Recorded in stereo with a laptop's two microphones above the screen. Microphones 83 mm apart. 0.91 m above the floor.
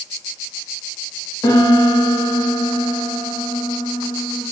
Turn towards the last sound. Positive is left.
turn(degrees=55)  # may be behind; listen again after turning